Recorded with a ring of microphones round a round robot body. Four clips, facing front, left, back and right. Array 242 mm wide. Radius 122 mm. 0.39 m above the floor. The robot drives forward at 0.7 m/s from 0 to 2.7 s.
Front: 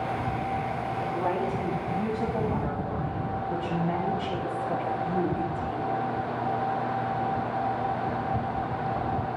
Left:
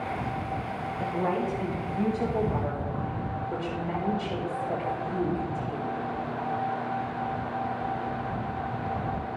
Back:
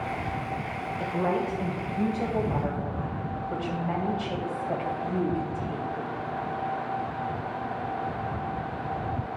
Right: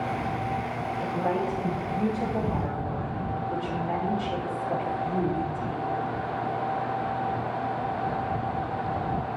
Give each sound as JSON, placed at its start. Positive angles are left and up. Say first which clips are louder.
{"t": 1.0, "sound": "a woman speaking", "louder": "even, back 2 dB", "azimuth_deg": 170, "distance_m": 1.6}